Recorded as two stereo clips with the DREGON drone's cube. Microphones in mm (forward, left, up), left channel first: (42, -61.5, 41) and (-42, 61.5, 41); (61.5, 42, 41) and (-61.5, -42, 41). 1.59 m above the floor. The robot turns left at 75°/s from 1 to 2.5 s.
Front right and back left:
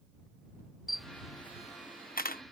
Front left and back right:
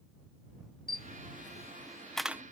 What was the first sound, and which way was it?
A camera shutter, 35° left.